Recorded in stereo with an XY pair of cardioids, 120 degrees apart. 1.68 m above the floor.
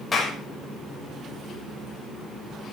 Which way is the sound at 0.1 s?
25° left.